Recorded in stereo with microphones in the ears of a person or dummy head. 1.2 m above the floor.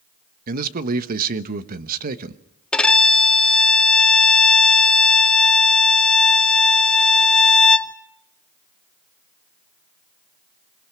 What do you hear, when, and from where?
0.5 s a man speaking: 55° right (ahead or behind), 1.2 m
2.7 s a violin: 10° left (ahead or behind), 0.6 m